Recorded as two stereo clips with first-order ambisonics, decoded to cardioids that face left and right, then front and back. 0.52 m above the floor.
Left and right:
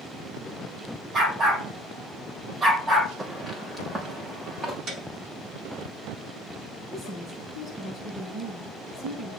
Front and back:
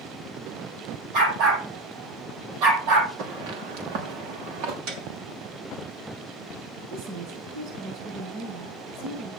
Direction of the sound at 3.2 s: 160° right.